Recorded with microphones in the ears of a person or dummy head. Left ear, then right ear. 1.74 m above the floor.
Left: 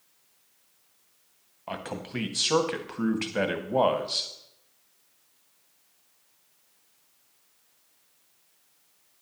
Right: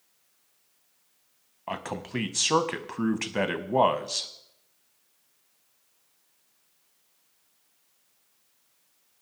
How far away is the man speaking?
About 0.7 m.